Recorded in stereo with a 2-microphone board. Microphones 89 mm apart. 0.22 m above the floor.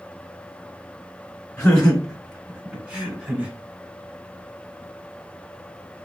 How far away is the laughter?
About 1.3 m.